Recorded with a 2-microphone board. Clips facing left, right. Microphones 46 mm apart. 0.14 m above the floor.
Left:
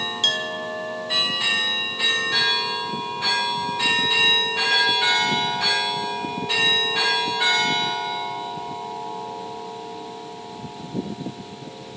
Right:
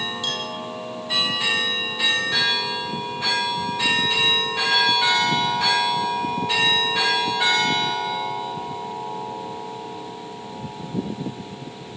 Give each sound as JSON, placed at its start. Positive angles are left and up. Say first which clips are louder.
{"t": 0.2, "sound": "a clink", "louder": "left 4 dB", "side_deg": 55, "distance_m": 3.5}